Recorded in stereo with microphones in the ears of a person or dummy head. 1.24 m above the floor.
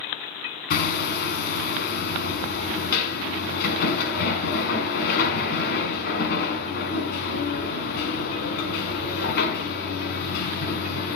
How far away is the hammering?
About 5.5 m.